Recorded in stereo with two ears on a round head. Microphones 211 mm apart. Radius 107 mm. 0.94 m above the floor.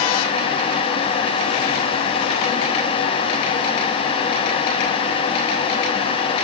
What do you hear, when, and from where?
Only background noise.